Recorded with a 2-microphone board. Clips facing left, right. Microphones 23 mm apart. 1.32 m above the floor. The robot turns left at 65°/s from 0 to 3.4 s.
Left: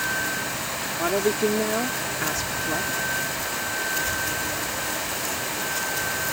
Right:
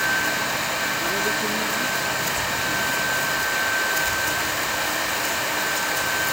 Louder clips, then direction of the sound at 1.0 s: Even; 150° left.